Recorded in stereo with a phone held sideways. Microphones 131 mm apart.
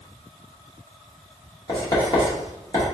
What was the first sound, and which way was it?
Writing, 30° left (ahead or behind).